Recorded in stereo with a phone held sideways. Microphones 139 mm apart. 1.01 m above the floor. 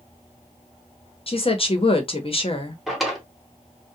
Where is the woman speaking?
40° left (ahead or behind), 0.8 m.